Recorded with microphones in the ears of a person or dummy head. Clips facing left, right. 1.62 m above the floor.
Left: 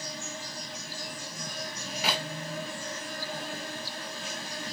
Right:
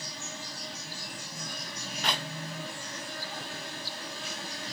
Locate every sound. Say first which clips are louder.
0.0 s an insect: left 3 dB; 50° left (ahead or behind), 10 m
2.0 s a clap: left 2 dB; 10° left (ahead or behind), 2 m